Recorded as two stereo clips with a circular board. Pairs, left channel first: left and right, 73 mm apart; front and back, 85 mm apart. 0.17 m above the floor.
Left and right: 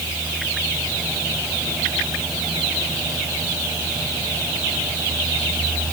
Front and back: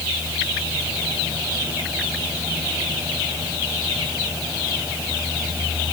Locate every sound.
Only background noise.